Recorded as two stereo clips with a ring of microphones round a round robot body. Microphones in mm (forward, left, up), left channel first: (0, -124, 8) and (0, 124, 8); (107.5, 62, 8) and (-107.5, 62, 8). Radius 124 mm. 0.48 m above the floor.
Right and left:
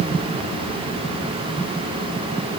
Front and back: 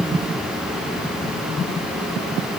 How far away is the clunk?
No clunk in this recording.